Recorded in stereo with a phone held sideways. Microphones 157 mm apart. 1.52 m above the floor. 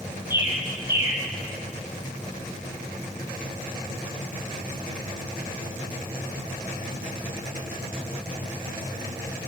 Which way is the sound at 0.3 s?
15° right (ahead or behind).